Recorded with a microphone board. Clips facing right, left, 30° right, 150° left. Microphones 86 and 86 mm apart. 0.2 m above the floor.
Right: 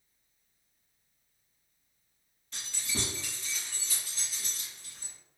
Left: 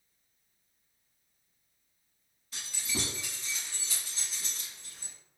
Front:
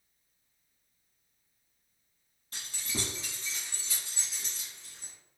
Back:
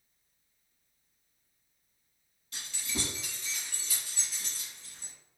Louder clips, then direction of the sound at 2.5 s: Left 1 dB, even; straight ahead.